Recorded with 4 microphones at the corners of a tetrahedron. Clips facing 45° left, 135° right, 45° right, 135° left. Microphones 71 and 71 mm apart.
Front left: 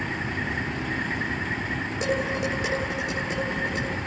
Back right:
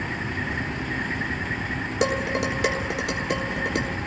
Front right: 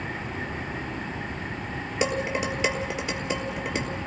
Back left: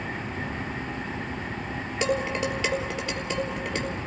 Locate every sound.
2.0 s dishes clattering: 120° right, 3.5 m